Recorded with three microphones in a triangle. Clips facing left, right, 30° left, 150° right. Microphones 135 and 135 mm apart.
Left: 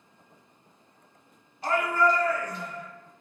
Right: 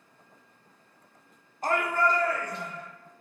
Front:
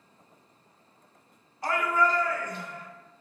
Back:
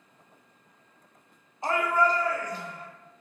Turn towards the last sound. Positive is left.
turn(degrees=-105)